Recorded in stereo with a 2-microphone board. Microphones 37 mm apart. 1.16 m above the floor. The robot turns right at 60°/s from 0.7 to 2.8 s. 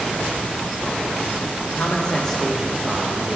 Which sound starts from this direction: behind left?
A man speaking, at 1.6 s.